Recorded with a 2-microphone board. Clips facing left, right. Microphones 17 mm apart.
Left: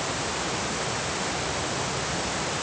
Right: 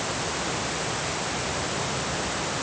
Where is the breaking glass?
I don't hear breaking glass.